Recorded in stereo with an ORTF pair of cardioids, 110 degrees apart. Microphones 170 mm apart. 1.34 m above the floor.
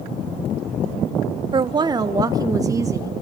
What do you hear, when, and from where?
1.5 s a woman speaking: 30° right, 0.8 m; by 3.2 s 15° right, 2 m